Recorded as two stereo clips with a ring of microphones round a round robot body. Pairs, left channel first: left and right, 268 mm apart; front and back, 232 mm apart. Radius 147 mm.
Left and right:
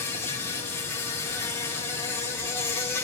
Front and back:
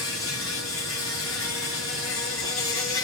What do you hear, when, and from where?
0.0 s an insect: 10° left, 2.5 m